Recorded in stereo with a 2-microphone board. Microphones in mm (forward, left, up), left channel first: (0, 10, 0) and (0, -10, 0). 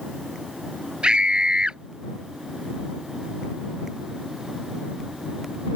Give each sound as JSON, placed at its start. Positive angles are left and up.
{"t": 1.0, "sound": "a scream", "side_deg": -50}